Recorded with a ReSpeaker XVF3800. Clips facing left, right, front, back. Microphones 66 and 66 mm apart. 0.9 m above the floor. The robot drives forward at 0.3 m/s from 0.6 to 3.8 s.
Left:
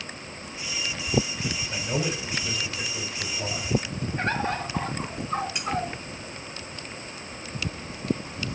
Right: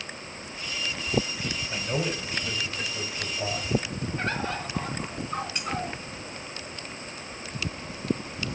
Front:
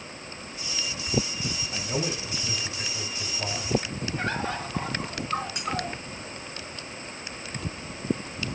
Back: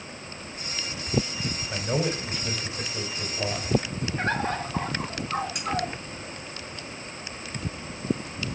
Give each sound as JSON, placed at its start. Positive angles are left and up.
{"t": 1.7, "sound": "a man speaking", "azimuth_deg": 180, "distance_m": 3.5}
{"t": 4.2, "sound": "a bird", "azimuth_deg": 140, "distance_m": 2.5}
{"t": 5.5, "sound": "cutlery clinking", "azimuth_deg": 170, "distance_m": 5.0}